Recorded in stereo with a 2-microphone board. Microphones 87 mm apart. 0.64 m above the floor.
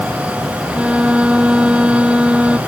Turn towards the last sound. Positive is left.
turn(degrees=-15)  # may be behind; listen again after turning